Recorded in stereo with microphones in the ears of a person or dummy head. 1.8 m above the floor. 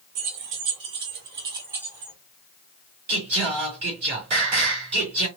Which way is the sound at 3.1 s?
40° right (ahead or behind).